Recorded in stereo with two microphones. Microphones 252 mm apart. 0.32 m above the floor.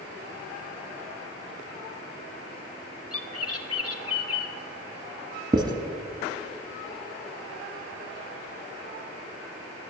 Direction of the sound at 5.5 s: 15° right (ahead or behind).